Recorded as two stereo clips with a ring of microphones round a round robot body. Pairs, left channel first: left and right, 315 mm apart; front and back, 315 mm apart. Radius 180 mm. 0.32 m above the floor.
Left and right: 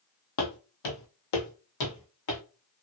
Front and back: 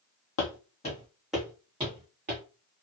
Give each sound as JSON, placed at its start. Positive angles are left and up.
{"t": 0.4, "sound": "footsteps", "azimuth_deg": 50, "distance_m": 0.7}